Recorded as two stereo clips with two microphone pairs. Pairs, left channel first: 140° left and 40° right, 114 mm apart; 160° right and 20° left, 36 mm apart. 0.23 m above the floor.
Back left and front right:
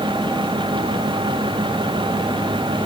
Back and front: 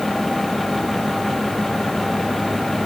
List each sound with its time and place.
Only background noise.